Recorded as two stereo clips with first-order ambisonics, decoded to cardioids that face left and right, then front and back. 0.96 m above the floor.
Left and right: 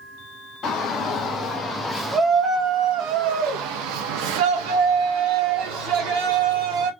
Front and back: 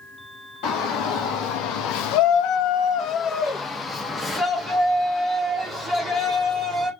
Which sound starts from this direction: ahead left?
A shout, at 0.6 s.